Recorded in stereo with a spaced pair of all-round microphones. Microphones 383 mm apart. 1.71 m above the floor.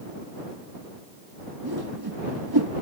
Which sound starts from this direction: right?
A whoosh, at 1.6 s.